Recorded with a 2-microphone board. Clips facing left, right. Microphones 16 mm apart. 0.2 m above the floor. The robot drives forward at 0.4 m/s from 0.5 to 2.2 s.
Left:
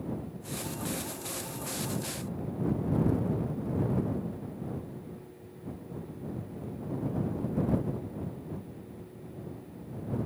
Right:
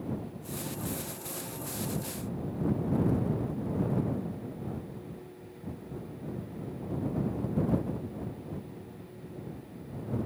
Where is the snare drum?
I don't hear a snare drum.